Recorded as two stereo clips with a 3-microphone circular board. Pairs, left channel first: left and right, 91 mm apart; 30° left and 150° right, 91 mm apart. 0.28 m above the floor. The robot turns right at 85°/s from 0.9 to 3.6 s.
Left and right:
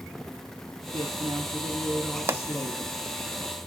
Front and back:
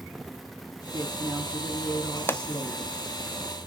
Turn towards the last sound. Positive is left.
turn(degrees=80)